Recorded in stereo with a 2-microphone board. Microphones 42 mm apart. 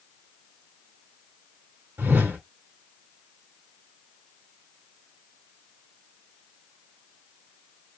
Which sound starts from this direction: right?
A whoosh, at 2.0 s.